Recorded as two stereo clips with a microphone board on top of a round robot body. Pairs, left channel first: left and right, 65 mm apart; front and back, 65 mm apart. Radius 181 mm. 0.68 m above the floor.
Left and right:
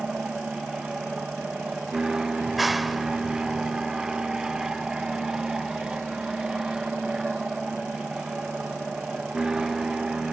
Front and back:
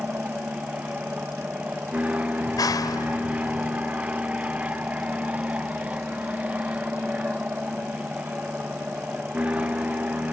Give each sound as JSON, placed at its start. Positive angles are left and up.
{"t": 0.0, "sound": "an aircraft", "azimuth_deg": -155}
{"t": 2.4, "sound": "a clap", "azimuth_deg": 0}